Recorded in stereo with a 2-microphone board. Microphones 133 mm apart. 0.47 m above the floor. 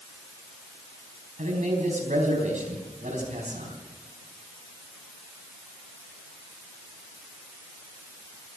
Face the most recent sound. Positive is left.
turn(degrees=-70)  # may be behind; listen again after turning